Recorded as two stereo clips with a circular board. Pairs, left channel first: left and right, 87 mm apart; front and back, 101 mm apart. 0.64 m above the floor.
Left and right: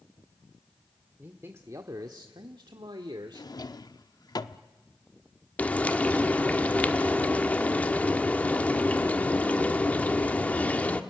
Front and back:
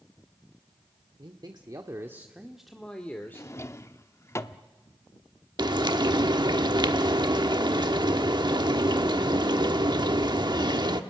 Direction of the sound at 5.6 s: 160° left.